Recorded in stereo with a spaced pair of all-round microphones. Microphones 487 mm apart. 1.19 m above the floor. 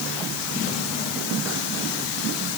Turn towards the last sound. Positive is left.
No sound to turn to.